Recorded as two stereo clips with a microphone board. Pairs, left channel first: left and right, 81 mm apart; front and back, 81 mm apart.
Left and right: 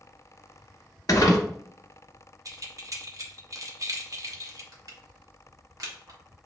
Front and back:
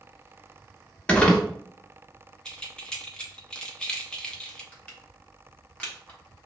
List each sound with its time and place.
1.1 s crumpling: 75° left, 0.9 m
2.5 s keys jangling: 75° right, 0.7 m
4.7 s crushing: 70° right, 1.0 m